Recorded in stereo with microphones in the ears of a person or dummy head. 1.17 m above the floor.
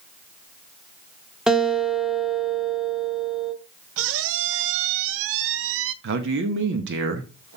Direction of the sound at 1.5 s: 5° right (ahead or behind).